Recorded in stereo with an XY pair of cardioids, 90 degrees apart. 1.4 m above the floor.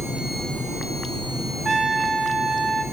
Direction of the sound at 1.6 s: 40° right.